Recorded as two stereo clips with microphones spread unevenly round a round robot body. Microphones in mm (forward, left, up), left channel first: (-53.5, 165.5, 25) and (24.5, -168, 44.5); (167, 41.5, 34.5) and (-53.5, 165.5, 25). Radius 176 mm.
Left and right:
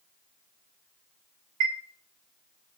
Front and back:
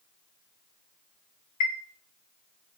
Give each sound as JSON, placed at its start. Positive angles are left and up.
{"t": 1.6, "sound": "a chime", "azimuth_deg": -35, "distance_m": 1.9}